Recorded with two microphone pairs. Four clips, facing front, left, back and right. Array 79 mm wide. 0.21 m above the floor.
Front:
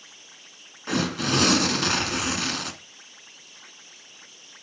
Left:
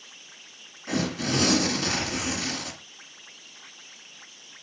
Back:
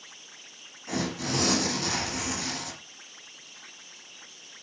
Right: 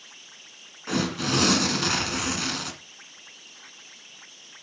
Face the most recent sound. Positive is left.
turn(degrees=-25)